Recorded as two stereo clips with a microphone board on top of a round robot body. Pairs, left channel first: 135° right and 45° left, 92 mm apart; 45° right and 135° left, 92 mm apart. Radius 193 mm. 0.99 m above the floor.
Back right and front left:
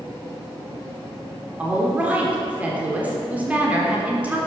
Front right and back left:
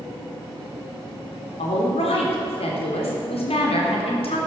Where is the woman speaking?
30° right, 3 m.